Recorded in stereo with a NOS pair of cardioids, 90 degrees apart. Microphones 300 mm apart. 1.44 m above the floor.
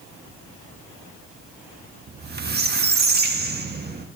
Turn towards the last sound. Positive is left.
turn(degrees=-35)